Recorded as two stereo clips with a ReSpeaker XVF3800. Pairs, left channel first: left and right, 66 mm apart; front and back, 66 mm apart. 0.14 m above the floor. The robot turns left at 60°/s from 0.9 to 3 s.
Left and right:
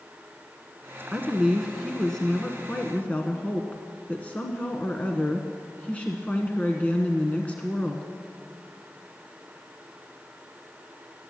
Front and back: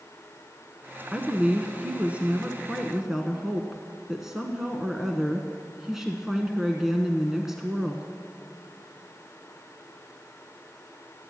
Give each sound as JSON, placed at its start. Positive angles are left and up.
{"t": 1.1, "sound": "a woman speaking", "azimuth_deg": -140, "distance_m": 1.1}